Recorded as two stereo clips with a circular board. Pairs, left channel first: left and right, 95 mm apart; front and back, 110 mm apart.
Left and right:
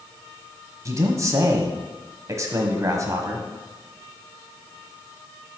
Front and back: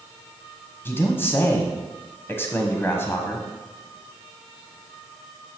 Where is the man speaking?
60° right, 1.2 m.